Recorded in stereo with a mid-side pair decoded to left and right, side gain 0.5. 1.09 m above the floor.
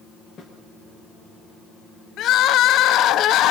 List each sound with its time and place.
0.4 s a snare drum: 50° left, 5 m
2.2 s crying: 70° left, 0.8 m